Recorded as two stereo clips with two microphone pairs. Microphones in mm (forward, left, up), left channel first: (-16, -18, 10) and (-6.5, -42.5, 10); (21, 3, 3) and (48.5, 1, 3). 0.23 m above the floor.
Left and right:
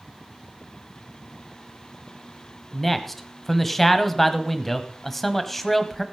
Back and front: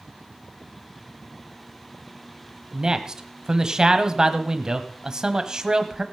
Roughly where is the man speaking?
Ahead left.